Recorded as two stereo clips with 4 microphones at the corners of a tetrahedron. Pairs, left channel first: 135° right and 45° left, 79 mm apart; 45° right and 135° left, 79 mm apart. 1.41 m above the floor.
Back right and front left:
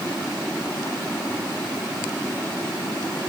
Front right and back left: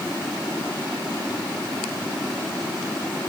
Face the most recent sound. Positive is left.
No sound to turn to.